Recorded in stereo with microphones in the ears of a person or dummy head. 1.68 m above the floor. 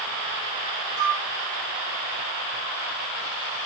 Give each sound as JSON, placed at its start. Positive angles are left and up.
{"t": 1.0, "sound": "a flute", "side_deg": -60, "distance_m": 0.5}